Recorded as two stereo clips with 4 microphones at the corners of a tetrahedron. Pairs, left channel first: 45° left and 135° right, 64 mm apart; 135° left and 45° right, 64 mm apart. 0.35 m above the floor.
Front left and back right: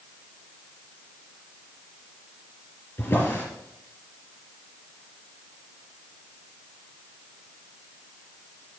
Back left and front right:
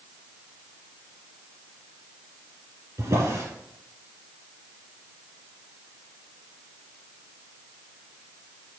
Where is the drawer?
15° right, 3 m.